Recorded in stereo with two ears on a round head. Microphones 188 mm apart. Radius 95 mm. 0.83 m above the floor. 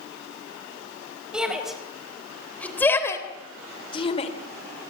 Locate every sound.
1.3 s a shout: 5° right (ahead or behind), 4 m; by 4.3 s 30° left (ahead or behind), 2.5 m